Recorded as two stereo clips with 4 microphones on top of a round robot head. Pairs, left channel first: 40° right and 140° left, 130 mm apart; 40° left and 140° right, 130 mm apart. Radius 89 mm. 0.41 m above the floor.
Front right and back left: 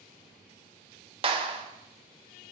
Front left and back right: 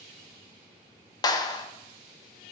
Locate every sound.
1.2 s a clap: 95° left, 1.1 m